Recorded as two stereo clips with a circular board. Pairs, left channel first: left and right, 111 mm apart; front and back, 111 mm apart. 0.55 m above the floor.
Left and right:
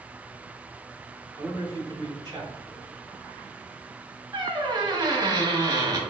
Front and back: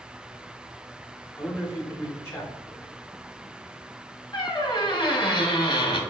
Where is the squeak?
40° right, 0.8 m.